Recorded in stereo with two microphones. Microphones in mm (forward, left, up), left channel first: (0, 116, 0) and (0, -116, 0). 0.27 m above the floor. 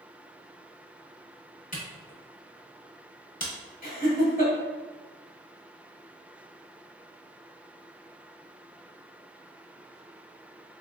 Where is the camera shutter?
35° left (ahead or behind), 1.2 m.